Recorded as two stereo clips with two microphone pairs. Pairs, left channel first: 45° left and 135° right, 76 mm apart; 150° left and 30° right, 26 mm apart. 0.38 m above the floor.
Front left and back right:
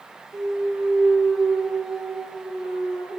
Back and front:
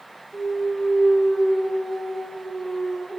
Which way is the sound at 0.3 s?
160° left.